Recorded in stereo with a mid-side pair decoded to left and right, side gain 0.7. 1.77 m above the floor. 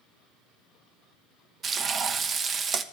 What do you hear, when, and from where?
1.6 s frying: 35° right, 0.7 m